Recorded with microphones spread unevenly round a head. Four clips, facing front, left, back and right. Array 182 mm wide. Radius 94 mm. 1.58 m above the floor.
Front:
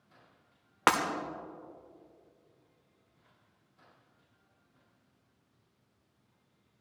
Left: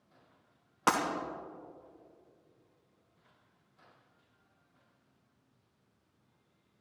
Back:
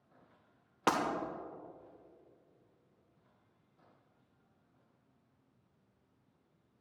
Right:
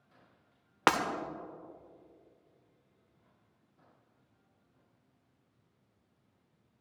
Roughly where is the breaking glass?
Right.